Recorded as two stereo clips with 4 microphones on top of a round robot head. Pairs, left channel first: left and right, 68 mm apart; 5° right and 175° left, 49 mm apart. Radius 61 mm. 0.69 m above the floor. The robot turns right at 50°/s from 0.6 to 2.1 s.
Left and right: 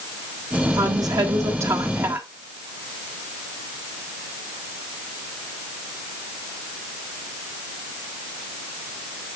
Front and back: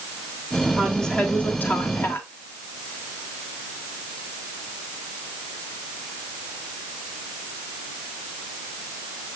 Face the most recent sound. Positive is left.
turn(degrees=-30)